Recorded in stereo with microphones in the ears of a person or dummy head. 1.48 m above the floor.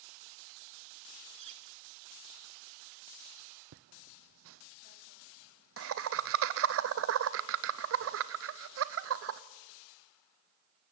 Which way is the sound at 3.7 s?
65° right (ahead or behind).